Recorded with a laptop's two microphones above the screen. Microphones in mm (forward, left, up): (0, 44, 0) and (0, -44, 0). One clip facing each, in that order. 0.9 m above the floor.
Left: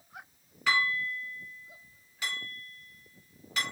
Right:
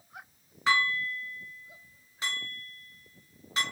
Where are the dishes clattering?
35° right (ahead or behind), 1.2 m.